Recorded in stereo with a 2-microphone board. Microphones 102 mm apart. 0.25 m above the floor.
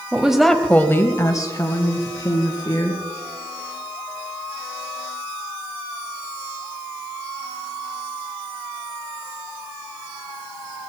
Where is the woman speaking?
10° right (ahead or behind), 1.3 m; by 3.0 s 40° left (ahead or behind), 3.5 m.